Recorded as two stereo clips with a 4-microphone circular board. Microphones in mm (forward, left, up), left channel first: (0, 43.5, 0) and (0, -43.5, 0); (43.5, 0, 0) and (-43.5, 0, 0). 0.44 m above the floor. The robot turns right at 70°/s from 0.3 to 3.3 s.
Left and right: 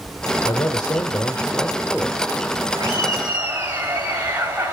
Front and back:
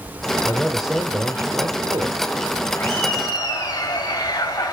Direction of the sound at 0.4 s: 70° left.